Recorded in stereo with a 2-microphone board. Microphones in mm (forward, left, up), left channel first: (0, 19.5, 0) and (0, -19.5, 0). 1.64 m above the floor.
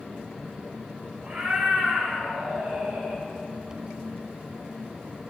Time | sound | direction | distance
1.2 | a cat meowing | 40° right (ahead or behind) | 2.5 m